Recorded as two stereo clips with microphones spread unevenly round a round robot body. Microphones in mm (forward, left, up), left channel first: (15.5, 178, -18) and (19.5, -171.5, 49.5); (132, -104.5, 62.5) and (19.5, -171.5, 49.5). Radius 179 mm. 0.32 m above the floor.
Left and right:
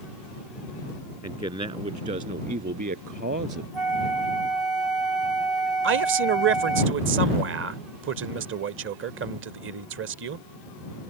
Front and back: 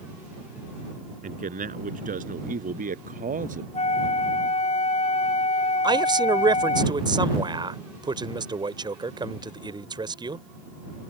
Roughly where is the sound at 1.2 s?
Behind.